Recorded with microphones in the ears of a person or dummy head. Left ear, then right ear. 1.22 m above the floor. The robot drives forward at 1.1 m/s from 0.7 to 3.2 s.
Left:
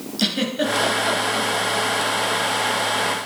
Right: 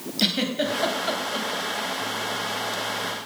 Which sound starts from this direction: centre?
A giggle, at 0.2 s.